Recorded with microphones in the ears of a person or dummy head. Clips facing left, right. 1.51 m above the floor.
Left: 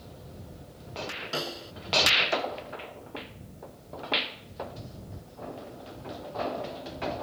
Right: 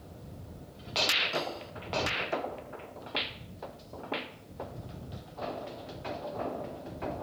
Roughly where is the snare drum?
Centre.